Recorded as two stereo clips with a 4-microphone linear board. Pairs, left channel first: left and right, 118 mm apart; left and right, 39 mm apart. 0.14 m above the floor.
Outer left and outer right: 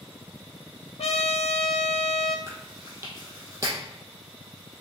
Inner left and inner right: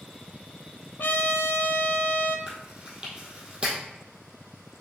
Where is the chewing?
25° right (ahead or behind), 2 m.